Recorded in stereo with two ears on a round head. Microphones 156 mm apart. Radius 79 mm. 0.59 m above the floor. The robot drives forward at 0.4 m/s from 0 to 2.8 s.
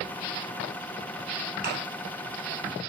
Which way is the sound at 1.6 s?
60° right (ahead or behind).